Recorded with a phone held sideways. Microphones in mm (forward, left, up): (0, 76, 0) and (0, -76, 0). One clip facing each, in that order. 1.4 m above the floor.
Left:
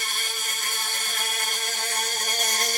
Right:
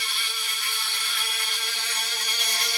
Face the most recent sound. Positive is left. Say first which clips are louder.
# left 3 dB
turn(degrees=45)  # may be behind; listen again after turning